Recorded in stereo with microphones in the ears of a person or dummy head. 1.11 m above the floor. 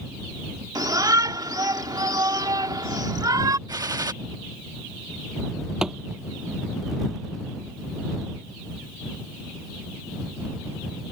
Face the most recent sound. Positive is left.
turn(degrees=-5)  # may be behind; listen again after turning